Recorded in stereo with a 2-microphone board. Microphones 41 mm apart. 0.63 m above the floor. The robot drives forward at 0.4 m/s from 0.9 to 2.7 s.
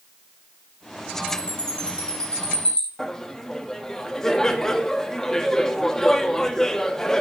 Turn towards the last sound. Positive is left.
turn(degrees=10)  # may be behind; listen again after turning